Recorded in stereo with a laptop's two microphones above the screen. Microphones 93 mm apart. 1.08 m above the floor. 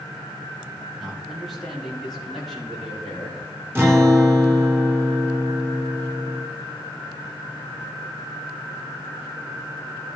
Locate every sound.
1.0 s a man speaking: centre (ahead or behind), 1.6 m
3.8 s a guitar: 25° right (ahead or behind), 1.3 m